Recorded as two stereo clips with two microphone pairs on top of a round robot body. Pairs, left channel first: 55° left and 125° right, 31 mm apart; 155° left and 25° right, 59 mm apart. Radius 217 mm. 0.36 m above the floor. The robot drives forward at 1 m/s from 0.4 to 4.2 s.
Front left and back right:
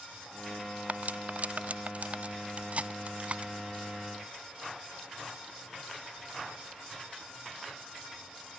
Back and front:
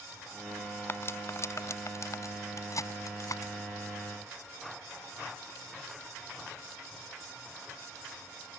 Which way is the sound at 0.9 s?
155° right.